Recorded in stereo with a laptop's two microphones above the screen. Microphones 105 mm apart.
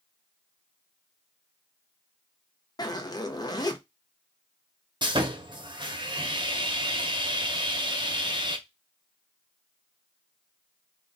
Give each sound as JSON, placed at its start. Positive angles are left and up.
{"t": 2.8, "sound": "a zipper", "side_deg": 40, "distance_m": 0.5}
{"t": 5.0, "sound": "sawing", "side_deg": -45, "distance_m": 0.8}